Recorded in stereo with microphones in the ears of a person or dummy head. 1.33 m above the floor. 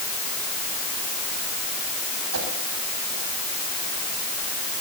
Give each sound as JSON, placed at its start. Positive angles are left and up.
{"t": 2.3, "sound": "a whoosh", "side_deg": -85, "distance_m": 8.0}